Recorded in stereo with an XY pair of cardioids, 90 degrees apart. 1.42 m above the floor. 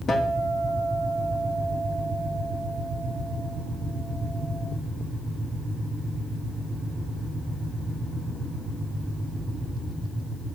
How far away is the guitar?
About 2.5 m.